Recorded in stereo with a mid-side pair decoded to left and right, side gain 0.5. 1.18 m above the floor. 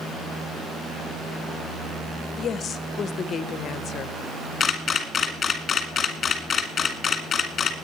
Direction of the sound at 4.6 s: 40° left.